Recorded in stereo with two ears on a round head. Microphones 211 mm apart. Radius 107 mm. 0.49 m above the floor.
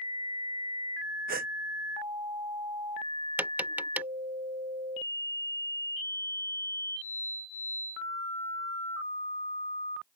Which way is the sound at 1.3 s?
40° right (ahead or behind).